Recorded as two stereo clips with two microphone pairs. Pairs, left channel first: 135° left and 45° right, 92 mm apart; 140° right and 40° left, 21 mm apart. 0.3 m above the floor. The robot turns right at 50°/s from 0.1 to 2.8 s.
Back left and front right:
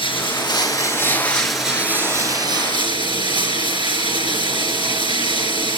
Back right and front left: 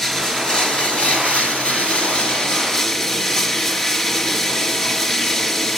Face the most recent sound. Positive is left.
turn(degrees=-70)